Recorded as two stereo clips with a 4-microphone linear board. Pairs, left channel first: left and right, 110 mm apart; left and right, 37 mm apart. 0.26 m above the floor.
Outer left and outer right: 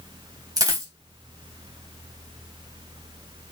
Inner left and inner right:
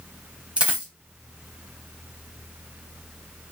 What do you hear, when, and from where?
0.6 s a dropped coin: 30° right (ahead or behind), 0.8 m